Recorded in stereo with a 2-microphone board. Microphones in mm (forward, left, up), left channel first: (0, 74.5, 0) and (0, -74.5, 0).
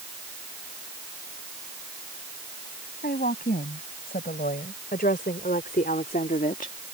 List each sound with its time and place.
3.0 s a woman speaking: 85° left; by 6.8 s 60° left (ahead or behind)